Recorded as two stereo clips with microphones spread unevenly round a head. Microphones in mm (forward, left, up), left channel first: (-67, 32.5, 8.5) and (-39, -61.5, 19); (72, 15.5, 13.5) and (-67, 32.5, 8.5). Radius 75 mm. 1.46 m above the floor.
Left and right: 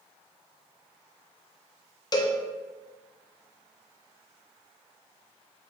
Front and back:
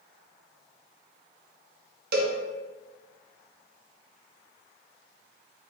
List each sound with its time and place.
2.1 s a cowbell: 155° left, 0.6 m